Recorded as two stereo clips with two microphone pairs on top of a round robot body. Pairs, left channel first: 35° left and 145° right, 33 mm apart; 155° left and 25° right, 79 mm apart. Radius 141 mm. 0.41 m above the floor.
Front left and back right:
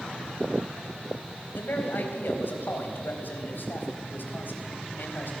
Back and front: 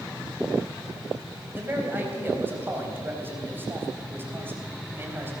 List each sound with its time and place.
1.5 s a man speaking: 40° left, 4 m